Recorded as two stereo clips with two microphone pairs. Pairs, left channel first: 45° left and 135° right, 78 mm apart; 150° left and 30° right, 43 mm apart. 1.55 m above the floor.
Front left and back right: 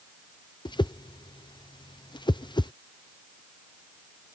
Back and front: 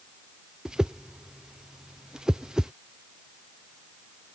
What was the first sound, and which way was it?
A whoosh, 45° left.